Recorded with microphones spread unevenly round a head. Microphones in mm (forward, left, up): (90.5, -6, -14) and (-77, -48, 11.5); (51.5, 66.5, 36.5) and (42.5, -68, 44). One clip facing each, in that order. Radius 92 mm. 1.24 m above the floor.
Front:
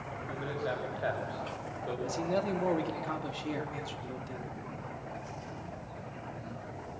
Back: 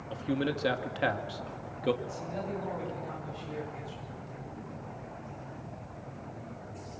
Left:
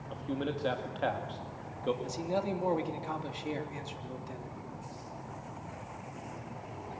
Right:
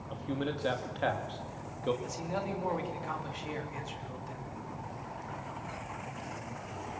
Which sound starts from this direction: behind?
A man speaking, at 0.1 s.